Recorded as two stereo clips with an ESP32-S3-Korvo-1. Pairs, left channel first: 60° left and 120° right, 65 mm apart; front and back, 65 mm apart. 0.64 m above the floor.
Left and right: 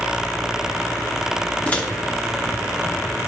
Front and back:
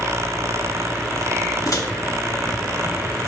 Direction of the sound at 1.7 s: 5° right.